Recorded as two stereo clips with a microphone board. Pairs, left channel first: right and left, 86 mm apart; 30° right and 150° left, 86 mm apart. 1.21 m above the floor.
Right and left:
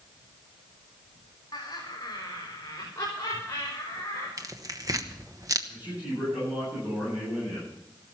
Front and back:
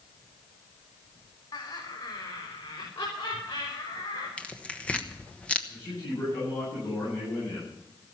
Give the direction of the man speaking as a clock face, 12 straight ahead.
11 o'clock.